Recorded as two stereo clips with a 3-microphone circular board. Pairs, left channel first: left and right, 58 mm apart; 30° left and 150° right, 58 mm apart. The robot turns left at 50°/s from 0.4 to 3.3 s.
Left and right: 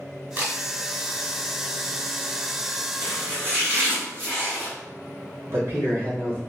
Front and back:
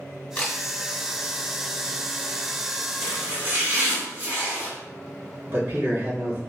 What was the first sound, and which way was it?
A camera shutter, 35° right.